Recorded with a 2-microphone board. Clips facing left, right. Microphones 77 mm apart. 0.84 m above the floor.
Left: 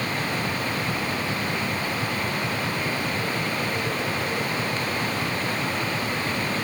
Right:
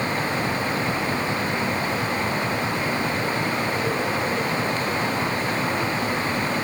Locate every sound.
Only background noise.